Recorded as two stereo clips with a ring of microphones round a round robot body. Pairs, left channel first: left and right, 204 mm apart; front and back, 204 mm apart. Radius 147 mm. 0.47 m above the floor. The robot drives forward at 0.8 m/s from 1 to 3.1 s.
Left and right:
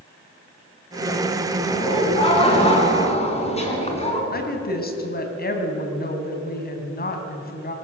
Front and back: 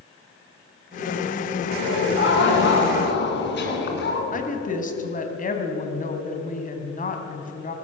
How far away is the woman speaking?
About 3.5 m.